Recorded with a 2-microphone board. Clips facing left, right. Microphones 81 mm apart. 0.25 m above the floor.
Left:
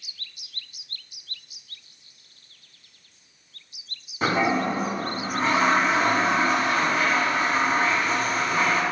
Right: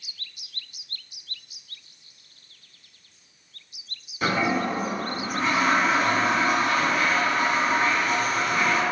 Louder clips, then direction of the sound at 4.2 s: Left 1 dB; 30° left (ahead or behind).